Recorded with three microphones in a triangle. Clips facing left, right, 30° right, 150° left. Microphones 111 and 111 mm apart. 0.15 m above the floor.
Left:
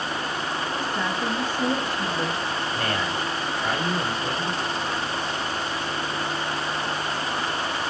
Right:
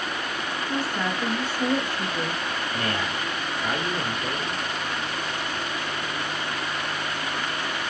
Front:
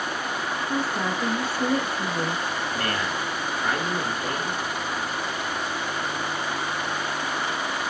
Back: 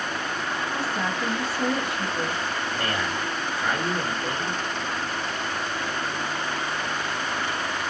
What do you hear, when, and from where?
0.7 s a woman speaking: 25° right, 1.5 m
2.7 s a man speaking: 115° right, 2.5 m